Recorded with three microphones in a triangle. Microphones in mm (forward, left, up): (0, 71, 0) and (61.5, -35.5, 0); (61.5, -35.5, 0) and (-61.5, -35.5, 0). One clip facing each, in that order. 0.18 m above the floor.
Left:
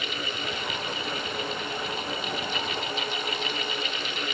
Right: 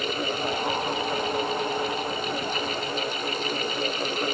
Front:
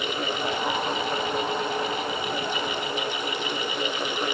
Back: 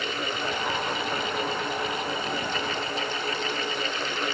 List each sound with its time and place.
Only background noise.